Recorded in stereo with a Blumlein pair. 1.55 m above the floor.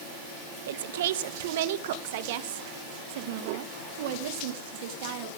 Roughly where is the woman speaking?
Ahead right.